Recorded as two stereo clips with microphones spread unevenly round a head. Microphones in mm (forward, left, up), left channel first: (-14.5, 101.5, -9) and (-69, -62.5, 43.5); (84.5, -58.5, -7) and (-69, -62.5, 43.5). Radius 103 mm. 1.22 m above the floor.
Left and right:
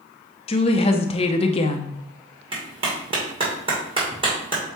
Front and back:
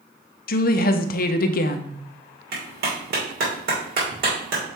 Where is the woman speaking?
15° left, 0.6 m.